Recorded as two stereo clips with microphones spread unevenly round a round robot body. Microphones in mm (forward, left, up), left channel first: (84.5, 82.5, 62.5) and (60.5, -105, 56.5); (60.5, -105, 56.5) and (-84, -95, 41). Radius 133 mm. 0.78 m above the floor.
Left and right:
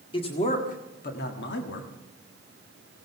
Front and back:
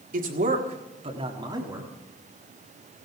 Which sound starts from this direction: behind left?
A man speaking, at 0.1 s.